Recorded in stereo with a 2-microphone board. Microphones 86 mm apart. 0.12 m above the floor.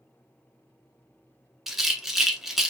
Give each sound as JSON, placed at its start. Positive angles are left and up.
{"t": 1.7, "sound": "a rattle", "side_deg": -5, "distance_m": 0.6}